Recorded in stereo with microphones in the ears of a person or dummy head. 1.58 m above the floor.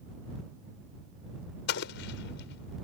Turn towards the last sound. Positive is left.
turn(degrees=70)  # may be behind; listen again after turning